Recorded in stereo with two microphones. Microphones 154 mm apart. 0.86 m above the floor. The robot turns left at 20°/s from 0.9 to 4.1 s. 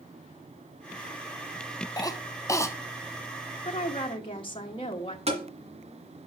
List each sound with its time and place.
2.0 s a cough: 25° left (ahead or behind), 0.6 m; by 2.7 s 20° left (ahead or behind), 0.6 m
3.6 s a woman speaking: 45° left (ahead or behind), 1.0 m; by 5.2 s 35° left (ahead or behind), 1.0 m
5.3 s tapping: 45° right (ahead or behind), 1.9 m